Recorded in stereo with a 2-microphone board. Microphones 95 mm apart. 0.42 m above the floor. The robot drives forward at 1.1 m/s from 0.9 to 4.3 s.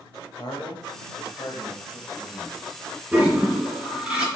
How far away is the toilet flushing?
About 3 m.